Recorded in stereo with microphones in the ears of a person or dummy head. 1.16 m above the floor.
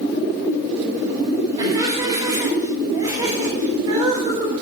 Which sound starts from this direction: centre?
Laughter, at 1.6 s.